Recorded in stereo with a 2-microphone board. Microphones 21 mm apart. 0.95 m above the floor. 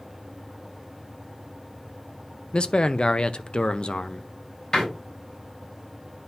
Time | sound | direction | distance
2.5 | a man speaking | 50° left (ahead or behind) | 0.5 m
4.7 | a door slam | 30° left (ahead or behind) | 4 m